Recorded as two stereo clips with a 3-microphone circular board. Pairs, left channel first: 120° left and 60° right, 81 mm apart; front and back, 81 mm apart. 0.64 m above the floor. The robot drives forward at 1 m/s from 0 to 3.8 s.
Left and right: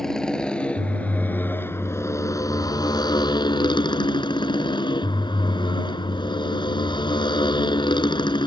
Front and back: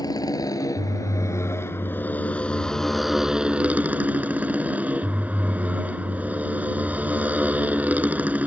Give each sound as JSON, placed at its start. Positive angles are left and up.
{"t": 0.0, "sound": "a motorcycle", "azimuth_deg": 35}